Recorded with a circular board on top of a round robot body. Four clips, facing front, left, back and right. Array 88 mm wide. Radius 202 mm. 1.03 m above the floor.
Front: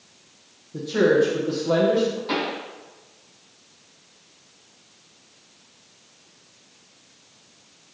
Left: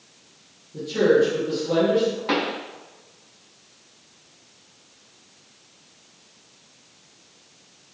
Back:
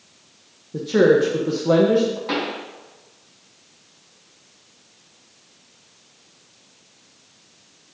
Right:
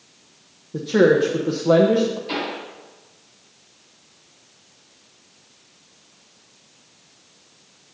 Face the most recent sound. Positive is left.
turn(degrees=110)